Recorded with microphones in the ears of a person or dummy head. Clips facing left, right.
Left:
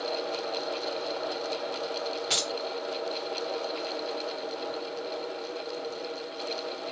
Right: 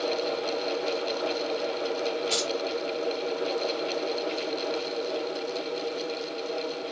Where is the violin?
I don't hear a violin.